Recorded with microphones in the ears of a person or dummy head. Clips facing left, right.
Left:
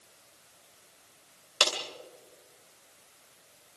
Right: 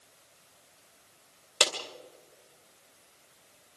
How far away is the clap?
About 2 m.